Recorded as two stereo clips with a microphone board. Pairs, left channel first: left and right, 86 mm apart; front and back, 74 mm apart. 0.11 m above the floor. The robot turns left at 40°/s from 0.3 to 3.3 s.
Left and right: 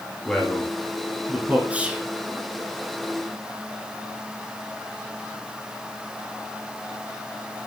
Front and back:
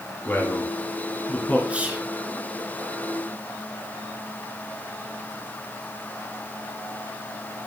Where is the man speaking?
20° left, 1.4 m; by 1.6 s 35° right, 1.4 m.